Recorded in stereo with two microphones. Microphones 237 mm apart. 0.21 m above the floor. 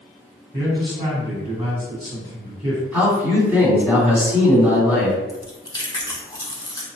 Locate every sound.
0.5 s a man speaking: 20° right (ahead or behind), 1.9 m
2.9 s a man speaking: 10° right (ahead or behind), 2.0 m
5.3 s chewing: 15° left (ahead or behind), 0.8 m